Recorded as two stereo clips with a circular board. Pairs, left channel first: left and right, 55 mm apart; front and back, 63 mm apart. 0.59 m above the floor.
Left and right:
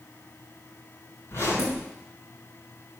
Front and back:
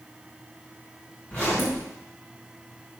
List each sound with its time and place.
1.3 s a zipper: 60° left, 5 m